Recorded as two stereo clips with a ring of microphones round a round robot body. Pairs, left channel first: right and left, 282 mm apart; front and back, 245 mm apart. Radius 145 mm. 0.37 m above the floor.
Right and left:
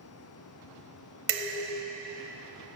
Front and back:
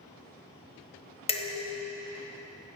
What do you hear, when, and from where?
1.3 s dishes clattering: 65° left, 1.3 m